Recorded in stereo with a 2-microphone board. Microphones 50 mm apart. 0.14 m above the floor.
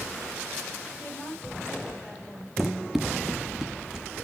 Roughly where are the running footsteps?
Centre.